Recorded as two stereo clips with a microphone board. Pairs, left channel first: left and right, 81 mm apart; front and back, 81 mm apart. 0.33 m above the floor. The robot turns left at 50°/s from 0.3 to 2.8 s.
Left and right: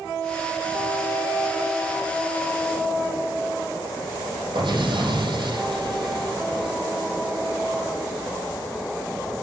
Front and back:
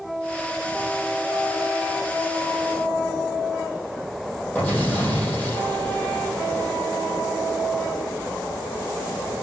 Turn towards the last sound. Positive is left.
turn(degrees=-70)